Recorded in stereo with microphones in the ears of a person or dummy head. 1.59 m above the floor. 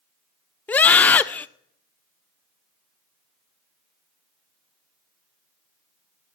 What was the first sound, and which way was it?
A scream, 5° left (ahead or behind).